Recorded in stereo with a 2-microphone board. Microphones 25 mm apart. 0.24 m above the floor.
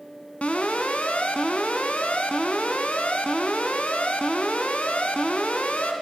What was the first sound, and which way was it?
An alarm, 60° left (ahead or behind).